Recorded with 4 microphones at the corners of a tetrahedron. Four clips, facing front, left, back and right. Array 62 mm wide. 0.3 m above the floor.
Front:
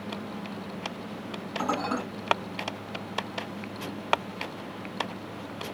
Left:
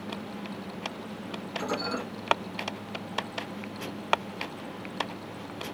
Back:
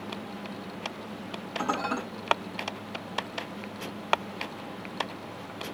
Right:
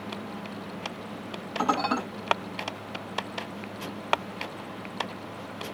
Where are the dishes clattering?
100° right, 6 m.